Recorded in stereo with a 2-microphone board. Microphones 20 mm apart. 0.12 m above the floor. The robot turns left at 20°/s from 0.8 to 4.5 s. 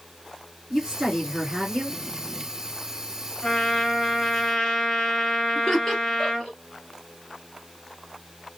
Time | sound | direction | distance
0.7 | a woman speaking | 35° right (ahead or behind) | 1.9 m
3.4 | a trumpet | 35° left (ahead or behind) | 1.4 m
5.5 | laughter | 20° left (ahead or behind) | 1.3 m